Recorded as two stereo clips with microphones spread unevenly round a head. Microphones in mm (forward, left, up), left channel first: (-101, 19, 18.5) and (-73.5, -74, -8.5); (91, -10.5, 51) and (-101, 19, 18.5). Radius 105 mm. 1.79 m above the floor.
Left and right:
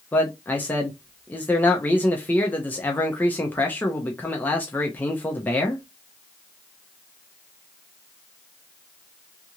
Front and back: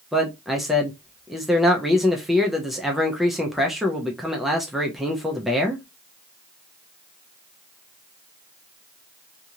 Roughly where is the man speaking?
Left.